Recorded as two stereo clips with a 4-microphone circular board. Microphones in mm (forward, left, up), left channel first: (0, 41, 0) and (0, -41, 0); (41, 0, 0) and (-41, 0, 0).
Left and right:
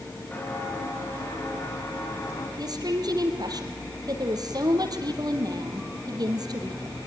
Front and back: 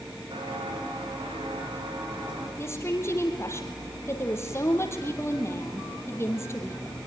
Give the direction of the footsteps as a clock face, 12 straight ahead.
7 o'clock.